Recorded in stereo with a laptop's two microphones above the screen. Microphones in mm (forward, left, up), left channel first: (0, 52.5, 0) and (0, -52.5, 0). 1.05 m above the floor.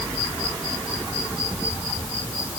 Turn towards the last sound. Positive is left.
No sound to turn to.